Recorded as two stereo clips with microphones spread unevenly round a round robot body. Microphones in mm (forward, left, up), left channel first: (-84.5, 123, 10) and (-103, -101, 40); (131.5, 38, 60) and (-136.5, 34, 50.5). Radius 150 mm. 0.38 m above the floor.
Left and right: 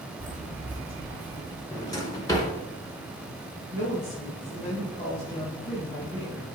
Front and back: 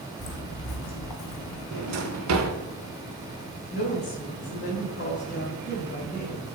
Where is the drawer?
160° left, 1.8 m.